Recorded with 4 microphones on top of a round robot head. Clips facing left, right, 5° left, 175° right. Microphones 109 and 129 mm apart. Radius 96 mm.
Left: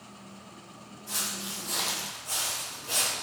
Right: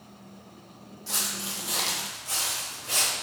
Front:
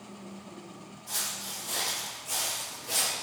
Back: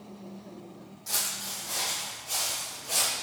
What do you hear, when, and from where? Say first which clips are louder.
1.1 s footsteps: right 2 dB, back 2 dB; 135° right, 0.8 m; by 3.1 s 20° left, 2.5 m